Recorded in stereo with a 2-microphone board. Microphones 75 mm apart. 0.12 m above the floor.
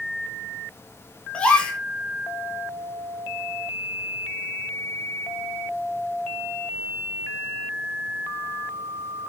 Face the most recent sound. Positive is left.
turn(degrees=15)  # may be behind; listen again after turning